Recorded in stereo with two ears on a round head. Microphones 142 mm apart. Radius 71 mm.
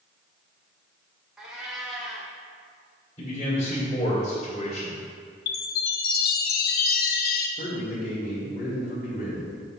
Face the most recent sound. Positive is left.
turn(degrees=55)  # may be behind; listen again after turning